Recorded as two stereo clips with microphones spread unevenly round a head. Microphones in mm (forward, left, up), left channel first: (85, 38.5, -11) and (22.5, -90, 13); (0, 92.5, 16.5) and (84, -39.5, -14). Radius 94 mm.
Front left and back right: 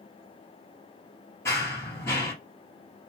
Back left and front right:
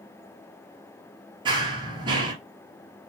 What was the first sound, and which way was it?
Running footsteps, 5° right.